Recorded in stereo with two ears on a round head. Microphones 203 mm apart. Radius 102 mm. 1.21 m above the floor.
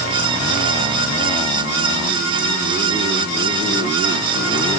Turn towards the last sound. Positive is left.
No sound to turn to.